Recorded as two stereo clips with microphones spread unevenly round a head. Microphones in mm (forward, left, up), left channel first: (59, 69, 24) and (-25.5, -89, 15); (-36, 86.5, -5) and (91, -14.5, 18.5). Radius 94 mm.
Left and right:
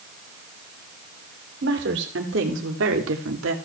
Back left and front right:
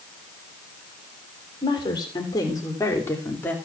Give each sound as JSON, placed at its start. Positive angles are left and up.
{"t": 1.6, "sound": "a woman speaking", "azimuth_deg": -150, "distance_m": 4.0}